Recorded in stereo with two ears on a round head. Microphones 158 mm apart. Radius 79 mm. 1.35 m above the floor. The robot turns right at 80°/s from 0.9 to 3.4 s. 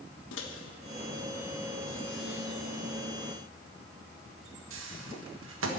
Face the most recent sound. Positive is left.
turn(degrees=-80)